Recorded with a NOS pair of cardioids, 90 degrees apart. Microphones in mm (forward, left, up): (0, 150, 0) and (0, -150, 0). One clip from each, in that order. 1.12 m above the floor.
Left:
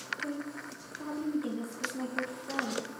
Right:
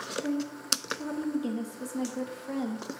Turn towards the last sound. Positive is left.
turn(degrees=-15)